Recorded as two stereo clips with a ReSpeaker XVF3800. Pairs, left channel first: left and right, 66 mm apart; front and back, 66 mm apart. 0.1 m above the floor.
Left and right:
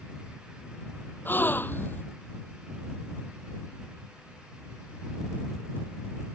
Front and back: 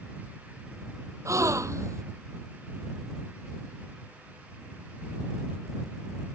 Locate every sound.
1.2 s a gasp: 145° left